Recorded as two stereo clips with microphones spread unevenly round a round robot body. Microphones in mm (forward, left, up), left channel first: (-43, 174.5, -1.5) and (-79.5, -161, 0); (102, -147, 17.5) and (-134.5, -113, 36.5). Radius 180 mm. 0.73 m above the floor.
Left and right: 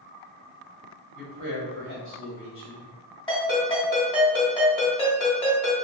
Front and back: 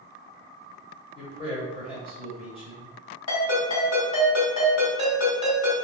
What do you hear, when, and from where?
1.1 s a man speaking: 55° left, 1.7 m
3.3 s a ringtone: 5° left, 1.8 m